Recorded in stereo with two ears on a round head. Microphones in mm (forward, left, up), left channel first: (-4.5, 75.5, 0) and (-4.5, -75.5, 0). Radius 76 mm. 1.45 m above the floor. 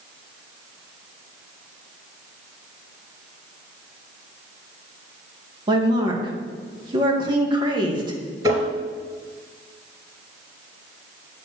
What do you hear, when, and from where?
5.7 s a woman speaking: 30° right (ahead or behind), 1.8 m
8.4 s tapping: 25° right (ahead or behind), 2.5 m